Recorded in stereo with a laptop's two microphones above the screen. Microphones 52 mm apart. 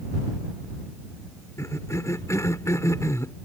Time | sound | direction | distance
1.6 | a cough | 75° left (ahead or behind) | ?